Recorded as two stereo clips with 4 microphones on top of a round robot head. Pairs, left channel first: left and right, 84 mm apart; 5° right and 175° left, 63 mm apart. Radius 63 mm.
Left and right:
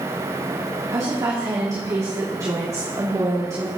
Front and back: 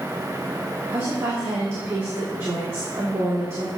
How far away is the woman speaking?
About 2 m.